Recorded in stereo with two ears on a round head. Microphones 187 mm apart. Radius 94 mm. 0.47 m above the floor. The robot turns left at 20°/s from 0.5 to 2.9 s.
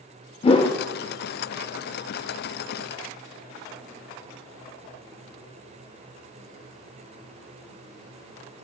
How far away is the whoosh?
About 0.5 m.